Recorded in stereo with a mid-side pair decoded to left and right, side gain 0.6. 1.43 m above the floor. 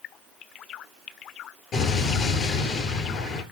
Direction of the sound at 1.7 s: 55° left.